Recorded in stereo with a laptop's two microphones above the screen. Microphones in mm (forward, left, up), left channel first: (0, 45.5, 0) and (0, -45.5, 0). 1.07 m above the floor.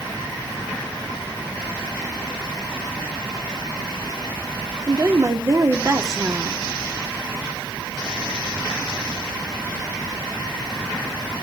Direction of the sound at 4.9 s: 35° right (ahead or behind).